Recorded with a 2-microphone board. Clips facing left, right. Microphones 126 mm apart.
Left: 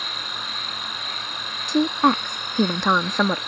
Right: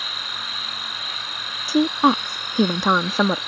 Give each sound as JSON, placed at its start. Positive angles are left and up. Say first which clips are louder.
{"t": 0.0, "sound": "an insect", "louder": "left 1 dB", "side_deg": -5}
{"t": 1.7, "sound": "a woman speaking", "louder": "right 1 dB", "side_deg": -5}